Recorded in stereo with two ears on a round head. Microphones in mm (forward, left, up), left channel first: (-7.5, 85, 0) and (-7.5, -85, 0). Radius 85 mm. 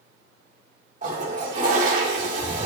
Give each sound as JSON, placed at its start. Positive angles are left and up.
{"t": 1.0, "sound": "a toilet flushing", "side_deg": -40, "distance_m": 2.5}